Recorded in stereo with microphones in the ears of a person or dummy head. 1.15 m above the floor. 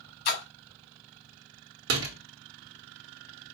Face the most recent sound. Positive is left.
turn(degrees=-60)  # may be behind; listen again after turning